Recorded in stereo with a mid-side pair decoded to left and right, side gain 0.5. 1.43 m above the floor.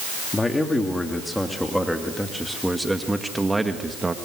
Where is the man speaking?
15° left, 3.5 m; by 4.2 s 20° right, 2.5 m.